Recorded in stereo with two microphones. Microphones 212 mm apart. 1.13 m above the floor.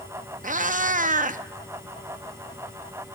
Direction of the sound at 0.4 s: 40° right (ahead or behind).